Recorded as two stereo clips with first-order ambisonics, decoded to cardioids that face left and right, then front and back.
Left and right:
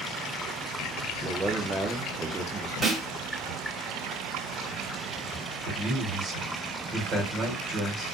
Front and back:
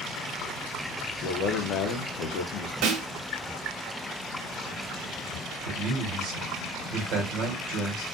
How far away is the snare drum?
About 0.9 m.